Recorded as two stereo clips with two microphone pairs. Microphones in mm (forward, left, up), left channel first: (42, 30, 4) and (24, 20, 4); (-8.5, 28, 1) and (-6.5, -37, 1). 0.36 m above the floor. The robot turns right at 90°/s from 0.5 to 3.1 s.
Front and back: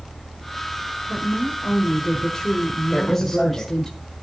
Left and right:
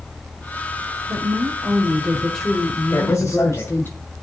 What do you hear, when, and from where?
1.1 s a woman speaking: 105° right, 1.5 m; by 3.9 s 75° left, 1.5 m
2.9 s a man speaking: 95° left, 2 m; by 3.7 s 110° left, 2 m